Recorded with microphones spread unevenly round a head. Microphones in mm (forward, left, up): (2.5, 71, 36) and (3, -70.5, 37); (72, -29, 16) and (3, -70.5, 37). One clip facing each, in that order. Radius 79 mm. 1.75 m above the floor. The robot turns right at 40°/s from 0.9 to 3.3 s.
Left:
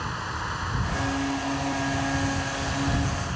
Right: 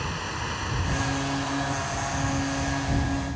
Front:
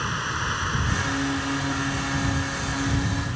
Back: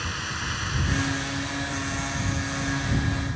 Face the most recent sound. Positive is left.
turn(degrees=80)